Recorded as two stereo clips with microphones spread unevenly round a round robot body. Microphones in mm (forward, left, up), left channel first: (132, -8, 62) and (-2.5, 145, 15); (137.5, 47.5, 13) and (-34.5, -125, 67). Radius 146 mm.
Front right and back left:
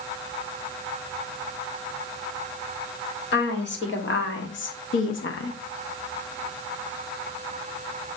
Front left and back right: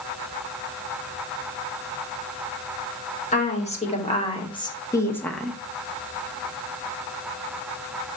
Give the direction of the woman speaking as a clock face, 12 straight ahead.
12 o'clock.